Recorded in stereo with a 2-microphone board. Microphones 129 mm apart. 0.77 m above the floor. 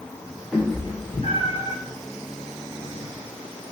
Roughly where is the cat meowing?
Centre.